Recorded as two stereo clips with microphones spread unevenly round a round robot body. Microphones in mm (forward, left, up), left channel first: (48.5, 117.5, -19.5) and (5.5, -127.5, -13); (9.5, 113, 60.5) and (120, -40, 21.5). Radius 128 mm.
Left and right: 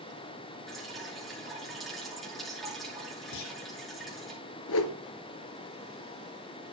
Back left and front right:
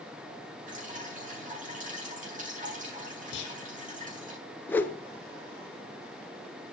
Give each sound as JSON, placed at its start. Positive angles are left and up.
{"t": 0.7, "sound": "dripping", "azimuth_deg": -10, "distance_m": 7.5}
{"t": 3.3, "sound": "a clunk", "azimuth_deg": 105, "distance_m": 3.0}
{"t": 4.7, "sound": "a whoosh", "azimuth_deg": 50, "distance_m": 1.1}